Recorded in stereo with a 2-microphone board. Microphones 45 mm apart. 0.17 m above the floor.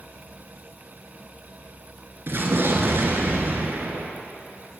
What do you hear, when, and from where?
2.3 s an explosion: 55° right (ahead or behind), 0.8 m